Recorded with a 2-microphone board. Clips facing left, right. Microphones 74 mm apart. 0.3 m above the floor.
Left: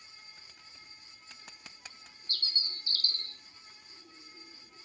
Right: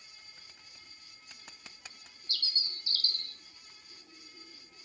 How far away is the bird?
About 0.7 m.